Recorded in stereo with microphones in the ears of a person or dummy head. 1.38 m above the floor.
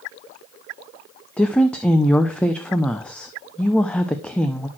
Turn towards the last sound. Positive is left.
turn(degrees=5)  # may be behind; listen again after turning